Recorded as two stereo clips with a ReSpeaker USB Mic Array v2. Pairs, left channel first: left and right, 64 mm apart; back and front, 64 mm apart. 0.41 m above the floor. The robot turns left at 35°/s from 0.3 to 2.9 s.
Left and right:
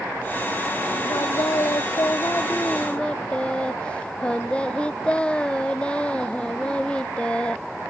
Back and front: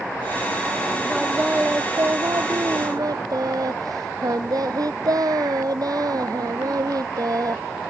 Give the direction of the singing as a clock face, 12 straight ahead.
9 o'clock.